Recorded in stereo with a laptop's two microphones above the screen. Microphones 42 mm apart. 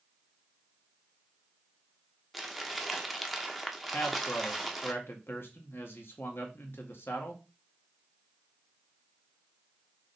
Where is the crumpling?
Centre (ahead or behind), 0.9 m.